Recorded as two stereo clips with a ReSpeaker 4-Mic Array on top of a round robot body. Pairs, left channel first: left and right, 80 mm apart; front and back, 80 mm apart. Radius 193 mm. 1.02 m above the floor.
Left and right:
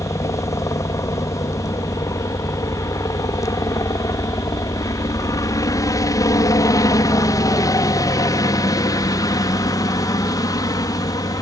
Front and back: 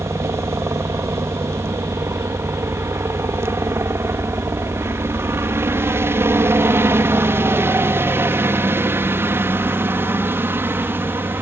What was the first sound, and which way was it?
A helicopter, 130° left.